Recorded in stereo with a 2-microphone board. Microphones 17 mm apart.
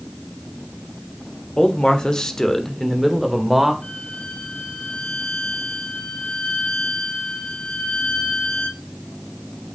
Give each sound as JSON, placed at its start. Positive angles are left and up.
{"t": 1.6, "sound": "a man speaking", "side_deg": 60, "distance_m": 1.7}
{"t": 3.8, "sound": "a violin", "side_deg": 80, "distance_m": 1.3}